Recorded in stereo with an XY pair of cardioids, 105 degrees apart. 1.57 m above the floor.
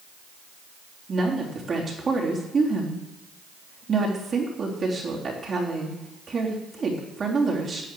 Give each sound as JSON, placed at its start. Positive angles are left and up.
{"t": 1.1, "sound": "a woman speaking", "azimuth_deg": -40, "distance_m": 3.5}